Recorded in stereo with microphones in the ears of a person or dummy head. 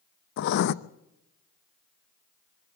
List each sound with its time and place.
0.4 s writing: 60° left (ahead or behind), 0.6 m